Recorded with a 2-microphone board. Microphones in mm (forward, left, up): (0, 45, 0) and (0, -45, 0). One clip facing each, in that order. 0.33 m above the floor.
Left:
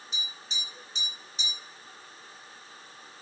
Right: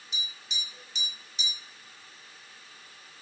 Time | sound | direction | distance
0.1 | tapping | 40° left (ahead or behind) | 1.2 m